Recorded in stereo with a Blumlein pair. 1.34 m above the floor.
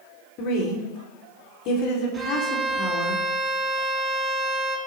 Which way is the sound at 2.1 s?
25° right.